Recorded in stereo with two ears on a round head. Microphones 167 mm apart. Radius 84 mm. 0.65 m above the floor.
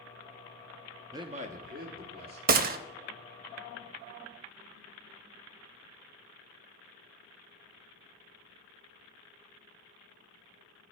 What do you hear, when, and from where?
1.1 s a man speaking: 15° right (ahead or behind), 0.5 m; by 2.4 s 55° right (ahead or behind), 1.9 m
2.5 s a gunshot: 50° right (ahead or behind), 0.5 m